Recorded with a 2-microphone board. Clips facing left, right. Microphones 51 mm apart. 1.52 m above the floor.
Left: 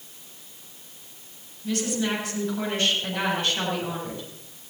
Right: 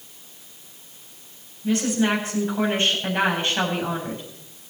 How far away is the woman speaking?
About 8 m.